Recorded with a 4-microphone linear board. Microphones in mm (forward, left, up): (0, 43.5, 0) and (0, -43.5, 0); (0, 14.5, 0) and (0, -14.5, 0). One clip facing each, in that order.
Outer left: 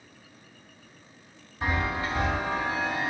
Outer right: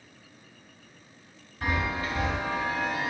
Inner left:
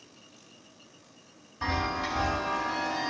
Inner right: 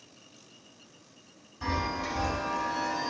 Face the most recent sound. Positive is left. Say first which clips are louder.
# outer left 1 dB, inner left 2 dB
turn(degrees=20)  # may be behind; listen again after turning